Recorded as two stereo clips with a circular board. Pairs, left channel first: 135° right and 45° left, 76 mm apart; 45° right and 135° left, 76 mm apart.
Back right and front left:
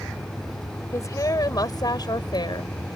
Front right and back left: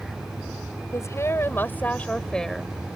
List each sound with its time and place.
0.9 s a woman speaking: 90° right; by 2.7 s 135° right